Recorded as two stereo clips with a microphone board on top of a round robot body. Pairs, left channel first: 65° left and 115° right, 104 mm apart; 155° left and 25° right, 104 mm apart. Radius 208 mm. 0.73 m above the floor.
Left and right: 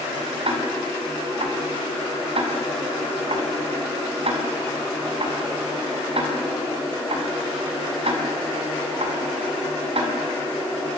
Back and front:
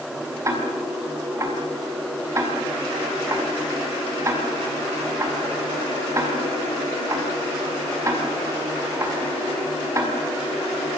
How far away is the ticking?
About 6.5 m.